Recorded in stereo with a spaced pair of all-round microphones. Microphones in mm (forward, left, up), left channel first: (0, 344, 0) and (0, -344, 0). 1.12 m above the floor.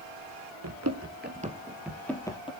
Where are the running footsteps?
30° right (ahead or behind), 1.3 m; by 2.5 s 10° left (ahead or behind), 1.8 m.